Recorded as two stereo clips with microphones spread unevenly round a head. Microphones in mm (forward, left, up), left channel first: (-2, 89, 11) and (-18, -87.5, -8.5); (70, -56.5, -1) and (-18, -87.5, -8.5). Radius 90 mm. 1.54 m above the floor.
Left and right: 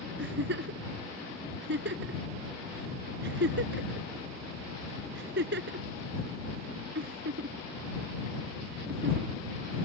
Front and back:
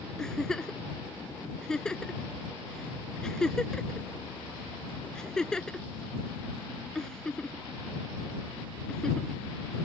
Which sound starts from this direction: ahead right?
A giggle, at 0.2 s.